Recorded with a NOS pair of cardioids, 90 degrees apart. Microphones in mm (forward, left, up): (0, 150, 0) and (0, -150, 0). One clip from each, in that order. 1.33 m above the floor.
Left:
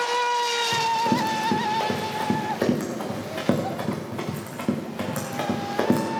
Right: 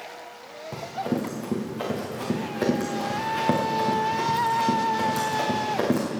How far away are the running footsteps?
About 5 m.